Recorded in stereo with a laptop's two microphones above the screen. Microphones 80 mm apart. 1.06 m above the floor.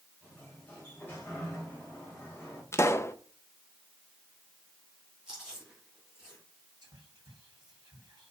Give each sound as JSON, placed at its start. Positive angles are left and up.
{"t": 0.2, "sound": "a sliding door", "side_deg": 20, "distance_m": 2.5}
{"t": 2.7, "sound": "a pop", "side_deg": 35, "distance_m": 0.5}
{"t": 5.3, "sound": "chewing", "side_deg": -10, "distance_m": 4.0}
{"t": 6.8, "sound": "whispering", "side_deg": -60, "distance_m": 2.5}